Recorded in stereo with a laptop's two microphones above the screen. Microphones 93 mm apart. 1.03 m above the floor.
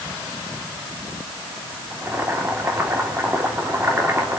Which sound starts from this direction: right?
Boiling, at 1.9 s.